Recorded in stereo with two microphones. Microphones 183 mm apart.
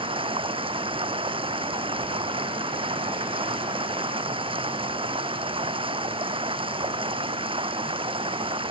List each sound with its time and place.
0.0 s running water: 30° right (ahead or behind)